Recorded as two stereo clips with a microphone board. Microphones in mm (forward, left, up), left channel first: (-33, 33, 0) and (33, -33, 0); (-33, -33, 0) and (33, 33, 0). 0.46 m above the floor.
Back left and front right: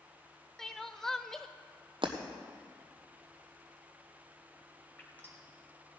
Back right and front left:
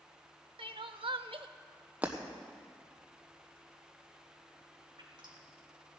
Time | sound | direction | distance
0.6 | crying | 50° left | 0.5 m
2.0 | breaking glass | 30° right | 1.3 m
5.0 | dripping | 65° left | 2.5 m